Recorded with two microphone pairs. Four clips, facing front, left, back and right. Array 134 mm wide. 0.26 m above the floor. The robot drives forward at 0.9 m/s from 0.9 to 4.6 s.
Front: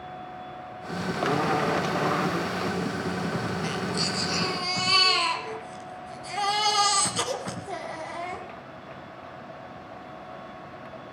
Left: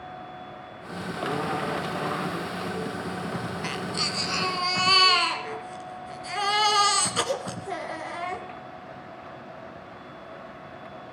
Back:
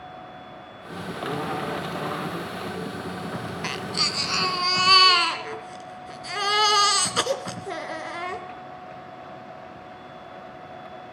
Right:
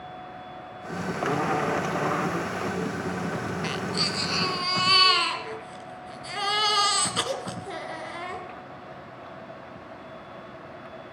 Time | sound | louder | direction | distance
3.6 | a baby crying | right 2 dB, front 1 dB | 175° left | 0.7 m